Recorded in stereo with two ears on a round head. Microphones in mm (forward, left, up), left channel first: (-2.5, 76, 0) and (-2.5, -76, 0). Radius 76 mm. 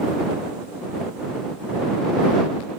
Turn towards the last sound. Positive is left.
No sound to turn to.